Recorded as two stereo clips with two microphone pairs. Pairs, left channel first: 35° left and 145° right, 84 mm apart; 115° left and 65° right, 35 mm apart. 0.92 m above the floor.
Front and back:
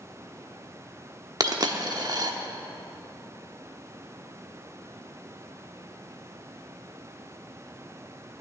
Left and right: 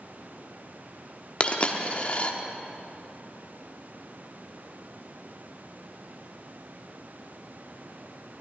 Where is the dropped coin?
175° left, 0.9 m.